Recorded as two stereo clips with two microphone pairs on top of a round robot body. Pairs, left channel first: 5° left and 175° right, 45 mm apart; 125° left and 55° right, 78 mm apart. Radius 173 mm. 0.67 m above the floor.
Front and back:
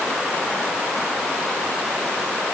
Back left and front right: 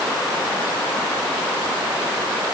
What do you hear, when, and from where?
Only background noise.